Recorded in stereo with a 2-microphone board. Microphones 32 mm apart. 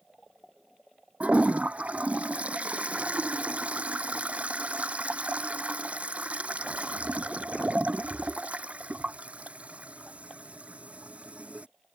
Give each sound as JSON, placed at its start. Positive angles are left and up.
{"t": 1.2, "sound": "a toilet flushing", "side_deg": -45}